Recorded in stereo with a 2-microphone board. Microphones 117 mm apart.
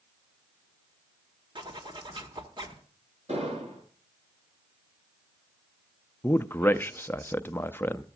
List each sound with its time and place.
1.6 s a zipper: 45° right (ahead or behind), 1.6 m
3.3 s an explosion: 70° right (ahead or behind), 4 m
6.2 s a man speaking: 20° left (ahead or behind), 0.5 m